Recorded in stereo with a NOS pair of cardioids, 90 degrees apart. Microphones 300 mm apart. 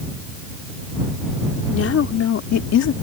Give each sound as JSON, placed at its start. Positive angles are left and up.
{"t": 1.7, "sound": "a woman speaking", "azimuth_deg": 50}